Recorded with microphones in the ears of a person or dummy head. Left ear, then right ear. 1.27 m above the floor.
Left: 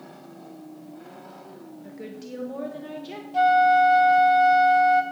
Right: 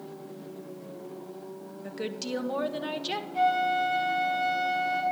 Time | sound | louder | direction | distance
1.8 | a woman speaking | right 6 dB | 45° right (ahead or behind) | 1.0 m
3.3 | a flute | left 8 dB | 40° left (ahead or behind) | 1.8 m